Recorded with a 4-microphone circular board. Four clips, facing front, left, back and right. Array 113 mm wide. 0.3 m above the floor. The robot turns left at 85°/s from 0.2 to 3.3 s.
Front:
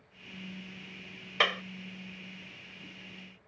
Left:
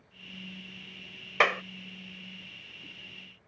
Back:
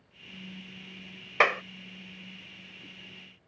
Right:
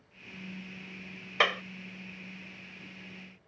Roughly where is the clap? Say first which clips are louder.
Left 3 dB, back 6 dB; behind left.